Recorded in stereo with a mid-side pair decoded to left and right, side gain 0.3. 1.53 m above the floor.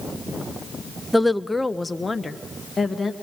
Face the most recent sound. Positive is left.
turn(degrees=35)